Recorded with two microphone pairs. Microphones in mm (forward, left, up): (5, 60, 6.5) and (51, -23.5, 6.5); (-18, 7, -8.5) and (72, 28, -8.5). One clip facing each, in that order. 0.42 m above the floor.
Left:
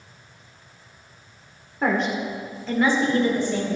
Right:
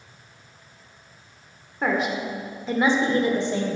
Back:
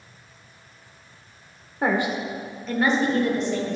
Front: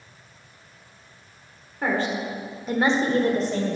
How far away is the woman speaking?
About 1.3 m.